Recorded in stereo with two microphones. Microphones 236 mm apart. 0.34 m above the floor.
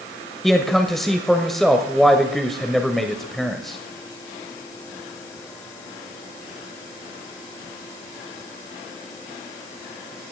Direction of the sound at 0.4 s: Centre (ahead or behind).